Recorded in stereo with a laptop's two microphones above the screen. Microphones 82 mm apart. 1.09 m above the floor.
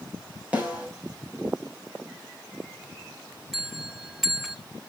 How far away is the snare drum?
About 3.5 m.